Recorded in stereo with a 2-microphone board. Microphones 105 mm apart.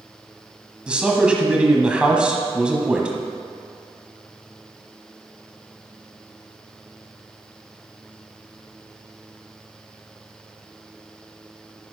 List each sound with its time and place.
0.9 s a man speaking: 10° right (ahead or behind), 1.2 m